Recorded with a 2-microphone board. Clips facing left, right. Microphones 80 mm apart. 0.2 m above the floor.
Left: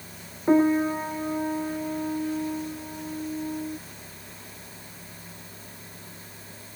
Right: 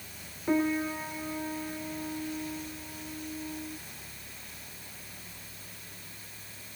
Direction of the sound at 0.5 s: 30° left (ahead or behind).